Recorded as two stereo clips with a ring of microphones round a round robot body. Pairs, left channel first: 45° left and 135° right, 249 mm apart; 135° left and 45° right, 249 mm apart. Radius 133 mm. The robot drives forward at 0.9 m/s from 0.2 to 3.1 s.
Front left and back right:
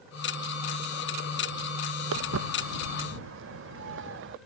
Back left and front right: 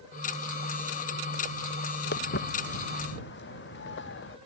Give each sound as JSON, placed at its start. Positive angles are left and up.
{"t": 2.1, "sound": "footsteps", "azimuth_deg": -175}